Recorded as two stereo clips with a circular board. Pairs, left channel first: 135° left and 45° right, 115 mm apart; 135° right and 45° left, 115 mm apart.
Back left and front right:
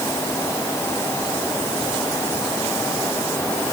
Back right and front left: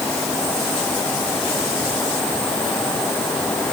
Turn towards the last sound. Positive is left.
No sound to turn to.